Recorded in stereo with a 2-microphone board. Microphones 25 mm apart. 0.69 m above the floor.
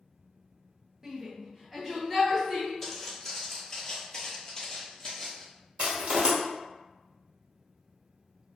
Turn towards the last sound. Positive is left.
turn(degrees=-60)  # may be behind; listen again after turning